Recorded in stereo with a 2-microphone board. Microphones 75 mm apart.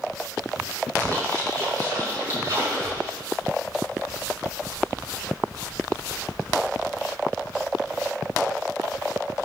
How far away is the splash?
About 5 m.